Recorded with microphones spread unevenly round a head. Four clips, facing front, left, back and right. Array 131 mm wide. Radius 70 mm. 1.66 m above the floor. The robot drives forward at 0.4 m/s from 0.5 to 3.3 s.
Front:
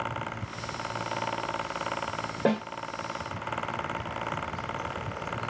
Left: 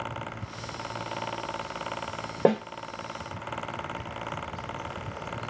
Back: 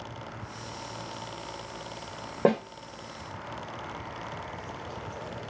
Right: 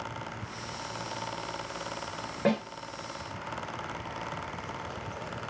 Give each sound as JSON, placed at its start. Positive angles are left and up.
{"t": 2.5, "sound": "a snare drum", "azimuth_deg": 130, "distance_m": 1.4}